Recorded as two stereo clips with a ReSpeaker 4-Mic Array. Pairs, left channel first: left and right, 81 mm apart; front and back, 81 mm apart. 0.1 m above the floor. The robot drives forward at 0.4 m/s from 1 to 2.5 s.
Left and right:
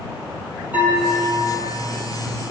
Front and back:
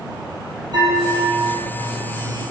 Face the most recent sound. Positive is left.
turn(degrees=-165)